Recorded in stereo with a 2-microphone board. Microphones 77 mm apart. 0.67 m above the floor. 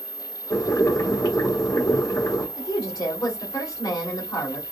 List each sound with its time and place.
0.5 s boiling: 60° left (ahead or behind), 1.4 m
2.6 s a woman speaking: 60° left (ahead or behind), 1.3 m